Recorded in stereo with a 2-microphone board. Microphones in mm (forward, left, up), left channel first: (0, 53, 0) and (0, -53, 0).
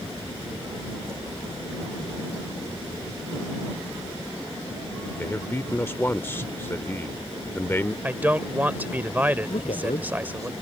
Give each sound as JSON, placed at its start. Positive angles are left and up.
{"t": 5.2, "sound": "a man speaking", "side_deg": 25}
{"t": 8.0, "sound": "a man speaking", "side_deg": -15}
{"t": 9.5, "sound": "a man speaking", "side_deg": 75}